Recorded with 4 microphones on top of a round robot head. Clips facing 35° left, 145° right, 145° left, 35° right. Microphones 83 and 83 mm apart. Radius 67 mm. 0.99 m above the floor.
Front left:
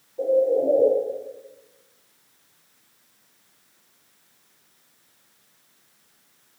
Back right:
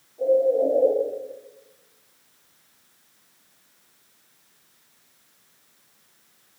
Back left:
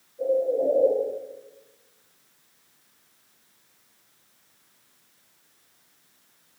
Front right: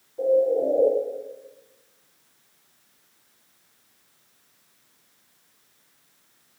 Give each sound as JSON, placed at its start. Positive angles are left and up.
{"t": 0.2, "sound": "a bird", "azimuth_deg": -25, "distance_m": 1.5}